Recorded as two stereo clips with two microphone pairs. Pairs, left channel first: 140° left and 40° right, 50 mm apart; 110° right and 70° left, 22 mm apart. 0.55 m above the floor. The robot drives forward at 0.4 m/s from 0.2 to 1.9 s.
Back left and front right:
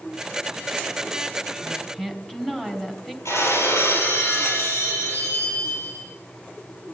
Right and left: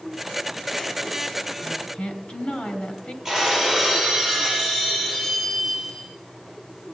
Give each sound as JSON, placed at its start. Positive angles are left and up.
{"t": 1.6, "sound": "a woman speaking", "azimuth_deg": -135, "distance_m": 3.0}
{"t": 3.2, "sound": "breaking glass", "azimuth_deg": 150, "distance_m": 9.0}